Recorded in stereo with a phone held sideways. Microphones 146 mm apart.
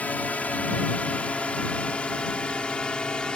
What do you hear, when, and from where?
0.0 s a drone: 10° left (ahead or behind); by 3.4 s 5° left (ahead or behind)